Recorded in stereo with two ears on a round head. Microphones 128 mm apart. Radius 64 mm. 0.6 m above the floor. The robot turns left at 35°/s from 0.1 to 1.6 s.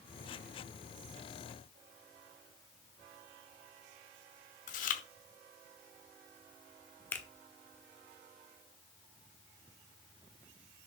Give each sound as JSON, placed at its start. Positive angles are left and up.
{"t": 4.7, "sound": "chewing", "side_deg": 60, "distance_m": 1.0}
{"t": 7.1, "sound": "a finger snap", "side_deg": 15, "distance_m": 1.1}